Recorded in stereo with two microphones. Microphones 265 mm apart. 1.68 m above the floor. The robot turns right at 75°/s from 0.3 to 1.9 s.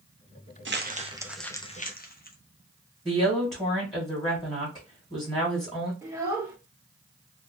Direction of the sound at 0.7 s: 50° right (ahead or behind).